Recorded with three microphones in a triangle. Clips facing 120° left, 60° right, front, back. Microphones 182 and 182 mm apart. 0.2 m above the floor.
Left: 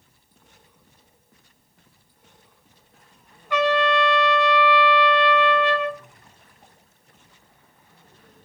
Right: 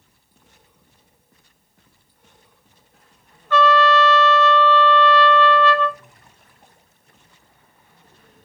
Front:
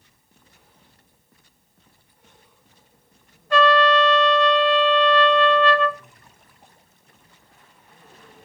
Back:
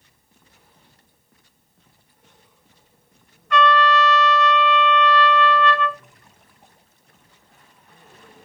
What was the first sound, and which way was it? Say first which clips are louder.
A trumpet: right 4 dB, front 1 dB; 45° left.